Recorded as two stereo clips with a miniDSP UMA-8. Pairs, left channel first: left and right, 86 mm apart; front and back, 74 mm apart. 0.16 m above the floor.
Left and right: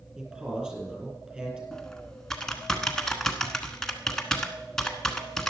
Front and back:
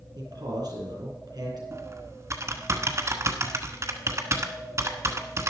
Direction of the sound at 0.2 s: 165° right.